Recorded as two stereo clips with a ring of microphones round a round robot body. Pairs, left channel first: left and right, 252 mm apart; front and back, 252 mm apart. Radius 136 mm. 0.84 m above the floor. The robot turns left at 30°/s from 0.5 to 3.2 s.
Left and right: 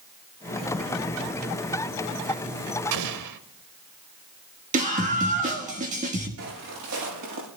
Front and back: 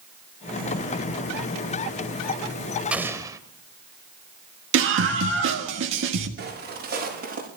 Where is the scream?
150° right, 1.5 m.